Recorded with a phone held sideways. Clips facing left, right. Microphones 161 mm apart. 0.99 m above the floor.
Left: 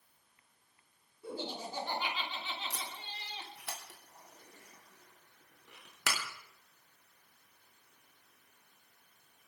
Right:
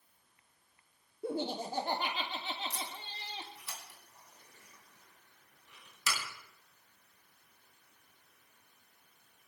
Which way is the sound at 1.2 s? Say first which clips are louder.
Right 5 dB; 55° right (ahead or behind).